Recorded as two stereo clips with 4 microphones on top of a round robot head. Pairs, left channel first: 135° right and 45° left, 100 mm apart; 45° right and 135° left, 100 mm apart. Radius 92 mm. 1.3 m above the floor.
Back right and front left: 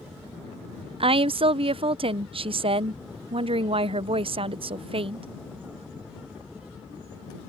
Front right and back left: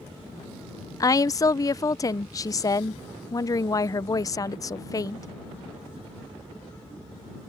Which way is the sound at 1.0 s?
15° left.